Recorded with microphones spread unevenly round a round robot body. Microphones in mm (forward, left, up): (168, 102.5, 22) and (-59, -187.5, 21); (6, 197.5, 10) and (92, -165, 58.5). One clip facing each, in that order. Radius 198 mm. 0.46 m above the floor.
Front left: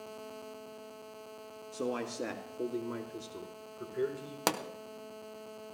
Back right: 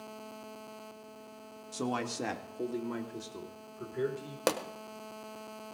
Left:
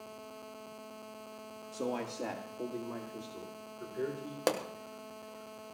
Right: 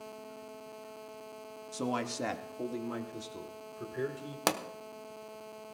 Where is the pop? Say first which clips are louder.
Back right 3 dB, left 2 dB; 15° right, 1.1 m.